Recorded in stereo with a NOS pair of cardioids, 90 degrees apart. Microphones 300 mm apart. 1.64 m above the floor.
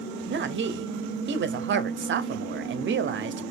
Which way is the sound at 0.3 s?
40° right.